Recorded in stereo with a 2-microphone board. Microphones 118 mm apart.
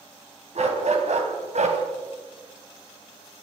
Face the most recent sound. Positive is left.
turn(degrees=-75)  # may be behind; listen again after turning